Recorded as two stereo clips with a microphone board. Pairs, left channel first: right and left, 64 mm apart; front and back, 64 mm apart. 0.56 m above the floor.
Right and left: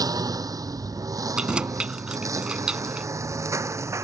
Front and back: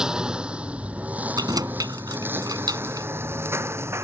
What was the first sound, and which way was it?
A lawn mower, 100° left.